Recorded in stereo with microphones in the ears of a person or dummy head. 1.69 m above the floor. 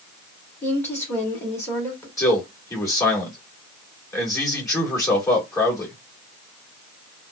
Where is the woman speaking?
5° left (ahead or behind), 2 m.